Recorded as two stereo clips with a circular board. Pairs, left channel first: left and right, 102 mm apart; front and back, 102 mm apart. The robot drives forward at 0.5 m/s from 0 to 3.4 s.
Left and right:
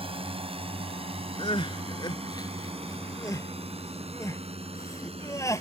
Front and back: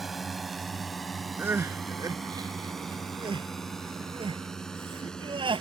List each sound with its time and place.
0.0 s a drone: 90° right; by 5.6 s 80° right
1.4 s crying: 110° left; by 5.6 s 150° left